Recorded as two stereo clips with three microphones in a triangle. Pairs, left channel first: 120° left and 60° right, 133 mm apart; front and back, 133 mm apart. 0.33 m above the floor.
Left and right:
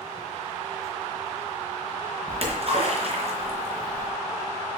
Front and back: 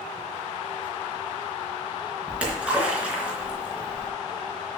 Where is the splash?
100° right, 3.5 m.